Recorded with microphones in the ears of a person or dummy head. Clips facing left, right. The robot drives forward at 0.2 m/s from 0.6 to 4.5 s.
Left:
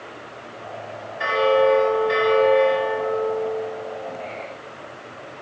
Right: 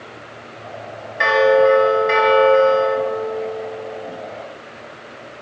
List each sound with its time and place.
1.2 s a bell: 85° right, 1.0 m; by 3.0 s 65° right (ahead or behind), 1.1 m